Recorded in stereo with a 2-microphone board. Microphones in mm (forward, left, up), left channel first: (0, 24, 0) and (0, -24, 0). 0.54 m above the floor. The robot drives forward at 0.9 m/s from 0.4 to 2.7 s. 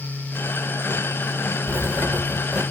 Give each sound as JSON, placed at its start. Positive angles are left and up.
{"t": 1.7, "sound": "writing", "side_deg": -50, "distance_m": 1.2}